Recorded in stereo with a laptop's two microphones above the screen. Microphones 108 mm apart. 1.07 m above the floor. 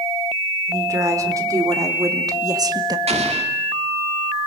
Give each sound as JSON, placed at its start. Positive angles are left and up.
{"t": 0.7, "sound": "a woman speaking", "side_deg": -30, "distance_m": 4.5}
{"t": 3.1, "sound": "an explosion", "side_deg": -80, "distance_m": 2.0}